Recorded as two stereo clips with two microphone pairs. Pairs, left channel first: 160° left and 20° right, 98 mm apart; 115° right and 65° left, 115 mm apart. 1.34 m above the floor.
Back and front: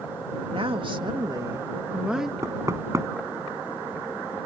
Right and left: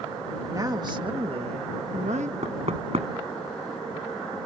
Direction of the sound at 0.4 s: Straight ahead.